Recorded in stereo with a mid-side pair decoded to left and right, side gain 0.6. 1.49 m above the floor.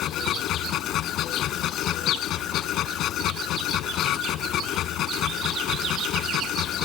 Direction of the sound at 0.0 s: 55° left.